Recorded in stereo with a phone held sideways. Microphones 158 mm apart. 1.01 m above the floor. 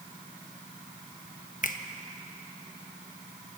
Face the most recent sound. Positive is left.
turn(degrees=60)  # may be behind; listen again after turning